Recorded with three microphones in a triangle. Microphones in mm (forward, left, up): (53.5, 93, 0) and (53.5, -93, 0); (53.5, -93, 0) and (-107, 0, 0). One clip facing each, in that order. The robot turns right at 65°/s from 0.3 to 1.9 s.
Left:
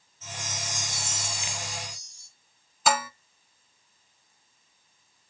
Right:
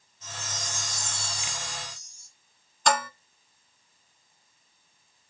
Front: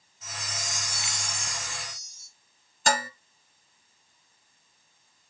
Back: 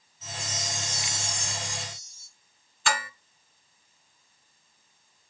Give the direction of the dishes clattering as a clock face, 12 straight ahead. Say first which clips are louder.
Even, front 4 dB; 12 o'clock.